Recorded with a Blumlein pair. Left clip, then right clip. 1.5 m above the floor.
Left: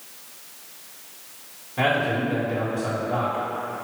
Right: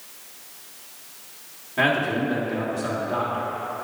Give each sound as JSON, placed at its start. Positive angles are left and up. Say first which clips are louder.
{"t": 1.8, "sound": "a man speaking", "louder": "right 1 dB", "azimuth_deg": -10, "distance_m": 2.0}